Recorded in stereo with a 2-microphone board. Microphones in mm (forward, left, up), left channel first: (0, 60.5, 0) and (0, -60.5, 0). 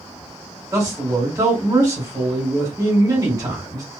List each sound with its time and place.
0.7 s a man speaking: 30° right (ahead or behind), 1.6 m